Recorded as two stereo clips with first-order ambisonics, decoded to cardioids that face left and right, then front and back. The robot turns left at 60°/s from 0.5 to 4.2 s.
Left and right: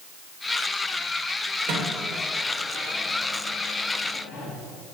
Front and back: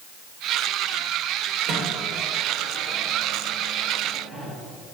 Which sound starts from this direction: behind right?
A microwave, at 1.7 s.